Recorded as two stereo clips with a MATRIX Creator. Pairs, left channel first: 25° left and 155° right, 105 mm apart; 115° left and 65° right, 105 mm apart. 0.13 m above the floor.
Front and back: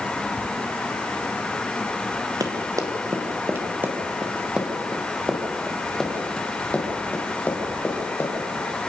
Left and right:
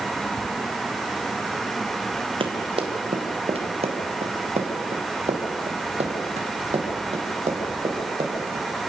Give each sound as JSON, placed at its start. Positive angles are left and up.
{"t": 2.4, "sound": "running footsteps", "azimuth_deg": -105, "distance_m": 3.0}